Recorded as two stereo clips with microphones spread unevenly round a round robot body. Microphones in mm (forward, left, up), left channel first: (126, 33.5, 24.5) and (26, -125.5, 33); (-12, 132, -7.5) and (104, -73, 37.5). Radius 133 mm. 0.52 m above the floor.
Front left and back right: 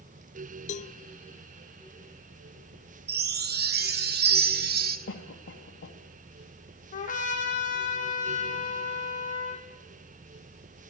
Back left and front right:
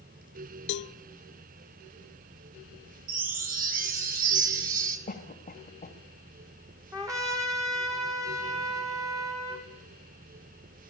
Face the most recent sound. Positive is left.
turn(degrees=15)